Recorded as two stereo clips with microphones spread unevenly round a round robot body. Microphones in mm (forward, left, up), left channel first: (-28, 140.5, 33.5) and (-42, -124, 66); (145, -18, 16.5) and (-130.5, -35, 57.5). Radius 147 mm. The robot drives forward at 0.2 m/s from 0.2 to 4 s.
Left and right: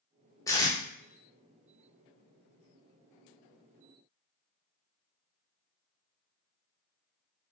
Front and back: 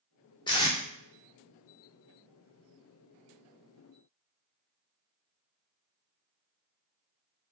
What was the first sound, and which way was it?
Tape being pulled, 40° left.